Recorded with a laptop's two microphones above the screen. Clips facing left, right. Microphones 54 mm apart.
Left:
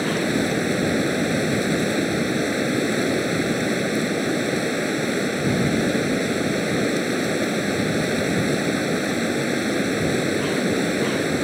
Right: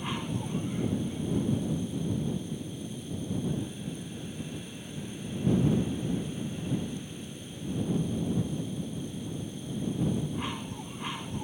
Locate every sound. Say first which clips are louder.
0.0 s running water: left 13 dB; 85° left